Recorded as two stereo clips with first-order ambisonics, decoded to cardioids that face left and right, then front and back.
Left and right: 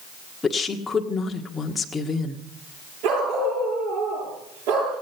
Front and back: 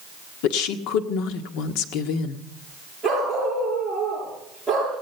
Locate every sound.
0.4 s a woman speaking: 15° left, 1.6 m
3.0 s a dog barking: 85° right, 9.5 m